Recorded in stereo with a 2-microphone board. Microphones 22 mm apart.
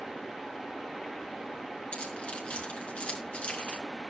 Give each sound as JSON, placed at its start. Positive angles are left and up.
{"t": 1.9, "sound": "keys jangling", "side_deg": 65, "distance_m": 4.5}